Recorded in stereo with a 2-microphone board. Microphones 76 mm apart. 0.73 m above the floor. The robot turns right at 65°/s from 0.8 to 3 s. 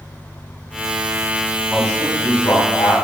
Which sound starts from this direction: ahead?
A man speaking, at 1.7 s.